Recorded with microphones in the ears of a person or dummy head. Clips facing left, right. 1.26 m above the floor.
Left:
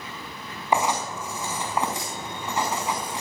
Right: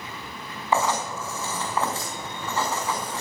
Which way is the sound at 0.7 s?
10° left (ahead or behind).